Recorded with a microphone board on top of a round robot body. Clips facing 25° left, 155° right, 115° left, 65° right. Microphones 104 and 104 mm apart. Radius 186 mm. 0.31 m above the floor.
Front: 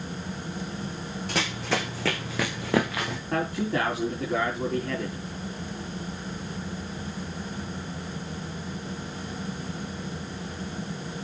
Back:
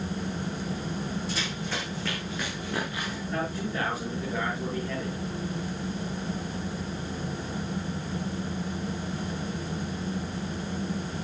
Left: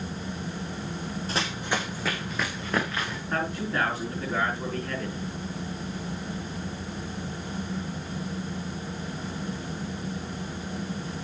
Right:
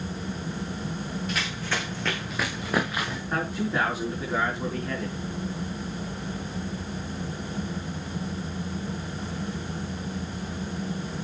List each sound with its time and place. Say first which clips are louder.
1.3 s running footsteps: front 4 dB, left 5 dB; 55° left, 1.9 m; by 3.2 s 10° left, 3.5 m
3.3 s a man speaking: front 5 dB, right 1 dB; 15° left, 5.5 m